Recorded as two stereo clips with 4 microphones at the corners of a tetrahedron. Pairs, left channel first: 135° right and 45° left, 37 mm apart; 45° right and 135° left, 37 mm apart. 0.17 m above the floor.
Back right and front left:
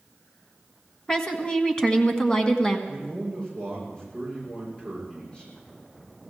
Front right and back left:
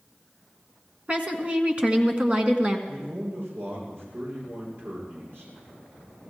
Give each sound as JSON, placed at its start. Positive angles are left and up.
{"t": 1.1, "sound": "a woman speaking", "azimuth_deg": 170, "distance_m": 1.6}
{"t": 2.9, "sound": "a man speaking", "azimuth_deg": 155, "distance_m": 9.5}